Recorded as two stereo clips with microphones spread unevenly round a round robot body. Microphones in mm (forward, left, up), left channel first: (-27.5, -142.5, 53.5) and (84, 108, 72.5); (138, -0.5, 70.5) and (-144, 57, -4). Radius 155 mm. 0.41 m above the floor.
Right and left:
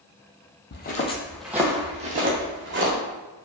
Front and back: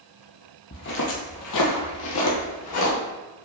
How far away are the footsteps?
About 0.8 m.